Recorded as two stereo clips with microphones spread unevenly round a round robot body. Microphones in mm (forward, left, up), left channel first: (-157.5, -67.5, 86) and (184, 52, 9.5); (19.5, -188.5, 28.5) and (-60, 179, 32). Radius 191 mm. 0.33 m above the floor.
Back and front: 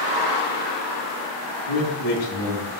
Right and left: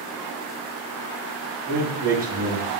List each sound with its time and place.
1.7 s a man speaking: 175° right, 3.5 m